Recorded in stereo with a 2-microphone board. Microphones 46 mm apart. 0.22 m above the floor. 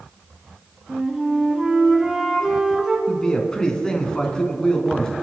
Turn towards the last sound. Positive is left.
turn(degrees=15)  # may be behind; listen again after turning